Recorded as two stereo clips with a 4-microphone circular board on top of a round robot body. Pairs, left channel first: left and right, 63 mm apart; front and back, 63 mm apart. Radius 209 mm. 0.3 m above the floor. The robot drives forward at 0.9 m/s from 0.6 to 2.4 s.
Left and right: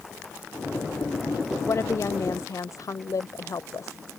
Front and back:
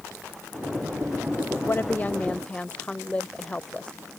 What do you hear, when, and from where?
1.6 s a woman speaking: 50° left; by 4.0 s 70° left